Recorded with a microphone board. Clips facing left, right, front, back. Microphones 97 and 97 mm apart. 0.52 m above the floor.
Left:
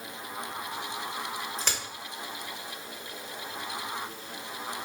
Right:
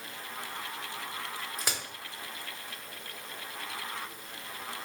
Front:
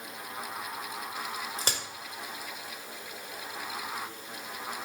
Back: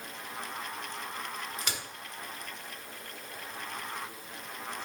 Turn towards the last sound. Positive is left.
turn(degrees=-15)